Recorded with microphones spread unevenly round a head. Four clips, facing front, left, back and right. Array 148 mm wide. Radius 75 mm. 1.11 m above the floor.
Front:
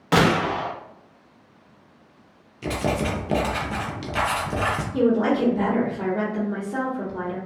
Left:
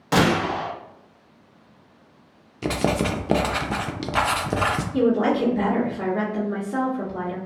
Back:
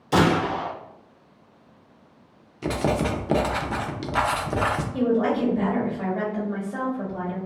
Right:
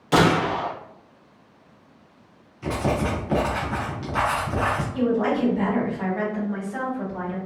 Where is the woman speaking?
50° left, 1.4 m.